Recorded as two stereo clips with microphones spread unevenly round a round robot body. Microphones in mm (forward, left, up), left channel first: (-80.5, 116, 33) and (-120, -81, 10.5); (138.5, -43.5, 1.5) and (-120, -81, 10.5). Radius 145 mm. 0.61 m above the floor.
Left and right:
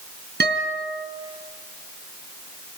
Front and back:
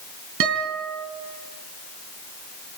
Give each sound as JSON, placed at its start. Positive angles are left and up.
{"t": 0.4, "sound": "a guitar", "azimuth_deg": -140, "distance_m": 3.0}